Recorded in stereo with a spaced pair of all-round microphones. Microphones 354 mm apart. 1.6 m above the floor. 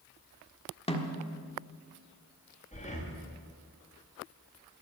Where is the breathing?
20° left (ahead or behind), 2 m.